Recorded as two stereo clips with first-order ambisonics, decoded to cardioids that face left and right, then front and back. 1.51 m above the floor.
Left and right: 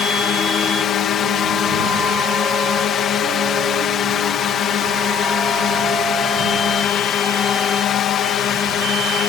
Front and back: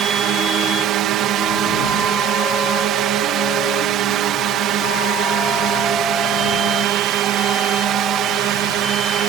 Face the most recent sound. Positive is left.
turn(degrees=145)